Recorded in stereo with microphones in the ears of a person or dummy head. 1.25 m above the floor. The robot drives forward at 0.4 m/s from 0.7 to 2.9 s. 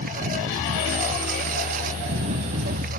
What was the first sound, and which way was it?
A lawn mower, 45° right (ahead or behind).